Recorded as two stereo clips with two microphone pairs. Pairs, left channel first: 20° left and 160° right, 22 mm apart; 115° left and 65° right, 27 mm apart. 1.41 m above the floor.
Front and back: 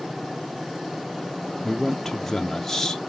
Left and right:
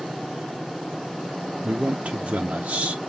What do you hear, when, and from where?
1.6 s a man speaking: 50° right, 0.5 m